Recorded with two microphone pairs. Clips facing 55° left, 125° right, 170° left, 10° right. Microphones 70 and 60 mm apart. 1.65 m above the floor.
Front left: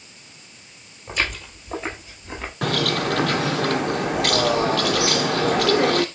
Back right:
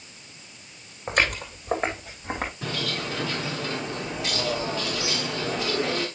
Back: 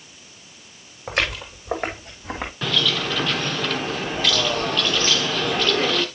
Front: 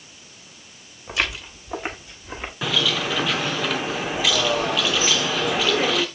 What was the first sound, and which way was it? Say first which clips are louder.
Footsteps: back right 2 dB, back 2 dB; 155° right.